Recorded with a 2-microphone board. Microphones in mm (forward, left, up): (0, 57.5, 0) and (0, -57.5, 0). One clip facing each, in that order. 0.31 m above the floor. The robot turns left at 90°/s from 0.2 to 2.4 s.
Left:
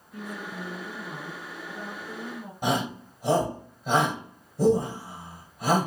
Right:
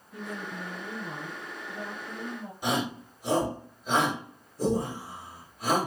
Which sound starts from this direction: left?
A shout, at 2.6 s.